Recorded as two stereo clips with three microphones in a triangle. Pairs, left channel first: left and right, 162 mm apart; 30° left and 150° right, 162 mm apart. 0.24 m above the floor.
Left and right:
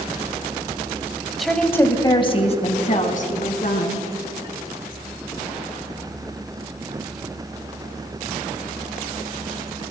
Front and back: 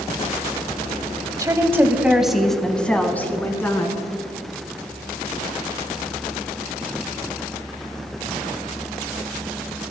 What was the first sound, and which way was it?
A woman speaking, straight behind.